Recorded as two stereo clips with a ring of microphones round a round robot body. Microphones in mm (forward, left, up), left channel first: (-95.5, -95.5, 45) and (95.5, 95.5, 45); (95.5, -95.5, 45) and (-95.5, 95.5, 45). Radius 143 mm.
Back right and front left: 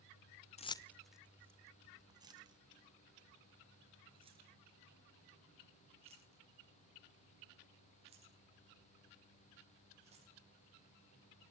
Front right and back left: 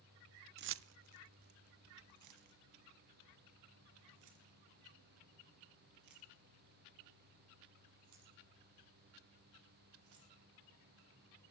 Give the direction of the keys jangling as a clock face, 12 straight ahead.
6 o'clock.